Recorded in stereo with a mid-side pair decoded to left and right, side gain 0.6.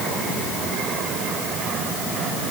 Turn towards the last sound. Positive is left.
No sound to turn to.